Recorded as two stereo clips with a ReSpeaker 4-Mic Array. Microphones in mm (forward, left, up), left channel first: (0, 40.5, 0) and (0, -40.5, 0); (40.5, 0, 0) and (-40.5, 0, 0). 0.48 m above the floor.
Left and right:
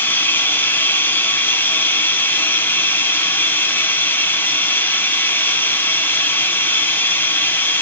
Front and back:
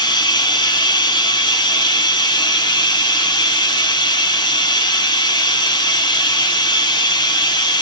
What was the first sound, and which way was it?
Running water, 25° left.